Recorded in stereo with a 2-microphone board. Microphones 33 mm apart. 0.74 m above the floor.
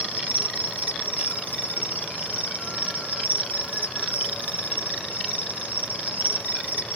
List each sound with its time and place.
0.0 s an insect: 70° right (ahead or behind), 1.7 m